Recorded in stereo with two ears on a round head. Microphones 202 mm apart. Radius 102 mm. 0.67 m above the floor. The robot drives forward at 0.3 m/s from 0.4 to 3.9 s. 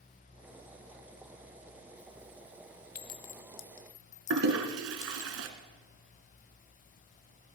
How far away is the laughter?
I don't hear laughter.